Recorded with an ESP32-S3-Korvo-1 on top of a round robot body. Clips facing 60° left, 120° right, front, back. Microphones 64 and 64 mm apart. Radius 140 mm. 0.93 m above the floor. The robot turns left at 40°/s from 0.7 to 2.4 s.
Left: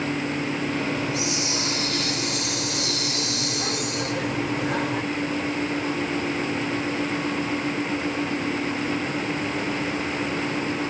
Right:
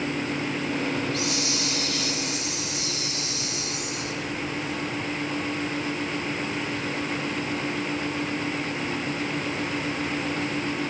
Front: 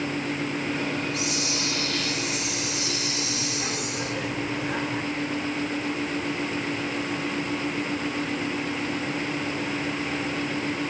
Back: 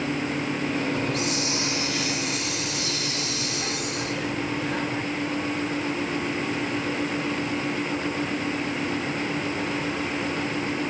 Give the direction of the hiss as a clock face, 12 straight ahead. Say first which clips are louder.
Left 1 dB, back 2 dB; 7 o'clock.